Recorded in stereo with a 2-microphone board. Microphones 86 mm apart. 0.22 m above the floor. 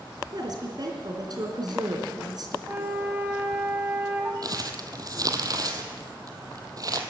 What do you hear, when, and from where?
0.3 s a woman speaking: 50° right (ahead or behind), 3 m
2.7 s a flute: 20° right (ahead or behind), 1.4 m
4.4 s crumpling: 45° right (ahead or behind), 1.3 m